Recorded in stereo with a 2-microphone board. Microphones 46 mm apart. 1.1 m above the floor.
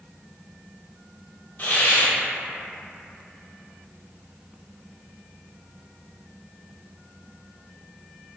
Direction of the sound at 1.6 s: 40° left (ahead or behind).